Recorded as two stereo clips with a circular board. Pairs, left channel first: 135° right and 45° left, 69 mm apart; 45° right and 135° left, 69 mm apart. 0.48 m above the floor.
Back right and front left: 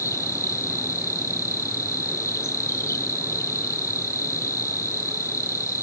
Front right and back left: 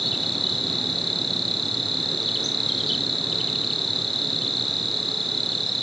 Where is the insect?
135° right, 1.3 m.